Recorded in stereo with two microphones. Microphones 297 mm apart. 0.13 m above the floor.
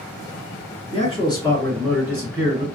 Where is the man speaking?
25° left (ahead or behind), 1.6 m; by 2.7 s 20° right (ahead or behind), 1.3 m.